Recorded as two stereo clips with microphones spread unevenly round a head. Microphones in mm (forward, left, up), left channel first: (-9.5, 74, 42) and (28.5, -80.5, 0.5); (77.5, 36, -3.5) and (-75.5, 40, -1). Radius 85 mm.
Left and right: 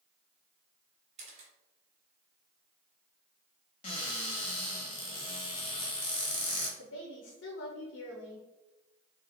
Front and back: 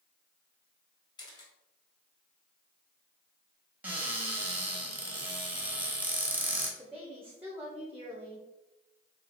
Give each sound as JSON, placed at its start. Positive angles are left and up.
{"t": 1.2, "sound": "a camera shutter", "azimuth_deg": -35, "distance_m": 1.0}
{"t": 3.8, "sound": "a cupboard door", "azimuth_deg": 105, "distance_m": 1.1}
{"t": 6.8, "sound": "a woman speaking", "azimuth_deg": 100, "distance_m": 0.8}